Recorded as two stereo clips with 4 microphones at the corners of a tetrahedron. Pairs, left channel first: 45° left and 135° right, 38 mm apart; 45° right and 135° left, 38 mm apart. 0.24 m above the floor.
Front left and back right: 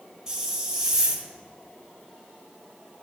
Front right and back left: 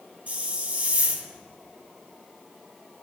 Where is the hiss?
160° left, 1.0 m.